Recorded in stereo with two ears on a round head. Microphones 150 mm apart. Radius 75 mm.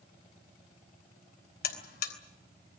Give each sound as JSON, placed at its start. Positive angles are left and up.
{"t": 1.6, "sound": "a buzzer", "side_deg": 65, "distance_m": 3.5}